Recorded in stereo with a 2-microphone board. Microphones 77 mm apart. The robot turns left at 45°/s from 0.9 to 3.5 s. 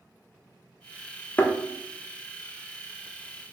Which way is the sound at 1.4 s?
25° left (ahead or behind).